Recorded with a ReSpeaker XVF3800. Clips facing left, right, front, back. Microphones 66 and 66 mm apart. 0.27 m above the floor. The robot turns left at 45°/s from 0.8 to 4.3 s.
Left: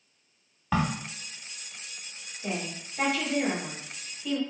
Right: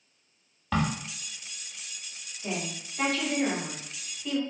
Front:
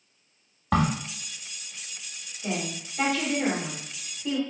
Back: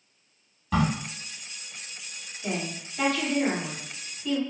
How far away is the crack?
About 0.6 m.